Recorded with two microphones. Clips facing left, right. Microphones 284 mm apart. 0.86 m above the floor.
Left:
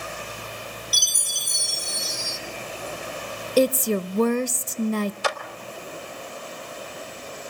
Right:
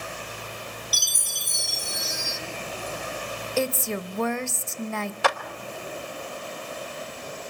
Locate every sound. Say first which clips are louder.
0.9 s a chime: left 1 dB; 65° right (ahead or behind), 2.5 m
3.6 s a woman speaking: left 8 dB; 40° left (ahead or behind), 0.6 m
5.2 s a clap: right 2 dB; 65° right (ahead or behind), 1.3 m